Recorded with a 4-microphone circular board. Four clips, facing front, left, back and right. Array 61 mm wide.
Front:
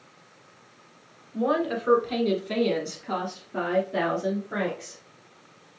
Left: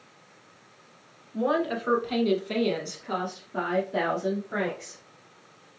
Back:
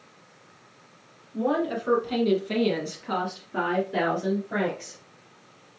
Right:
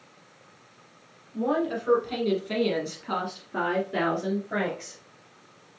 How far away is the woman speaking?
About 1.5 m.